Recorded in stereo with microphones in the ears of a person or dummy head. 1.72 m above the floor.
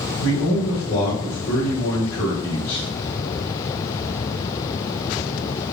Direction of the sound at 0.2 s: 85° left.